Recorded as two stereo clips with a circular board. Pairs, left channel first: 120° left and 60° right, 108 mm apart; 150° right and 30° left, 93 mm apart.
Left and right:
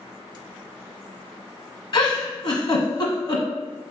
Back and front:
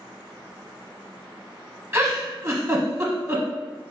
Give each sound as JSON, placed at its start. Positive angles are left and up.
{"t": 1.9, "sound": "a giggle", "azimuth_deg": 90, "distance_m": 1.0}